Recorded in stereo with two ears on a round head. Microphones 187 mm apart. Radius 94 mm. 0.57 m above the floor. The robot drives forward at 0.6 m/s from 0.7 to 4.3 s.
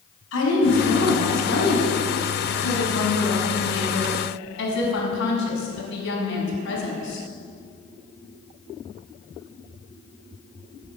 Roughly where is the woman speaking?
Left.